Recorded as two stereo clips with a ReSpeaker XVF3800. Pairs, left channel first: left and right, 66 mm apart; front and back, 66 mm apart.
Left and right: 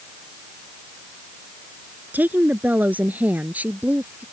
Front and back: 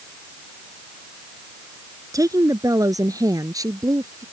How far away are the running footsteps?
I don't hear running footsteps.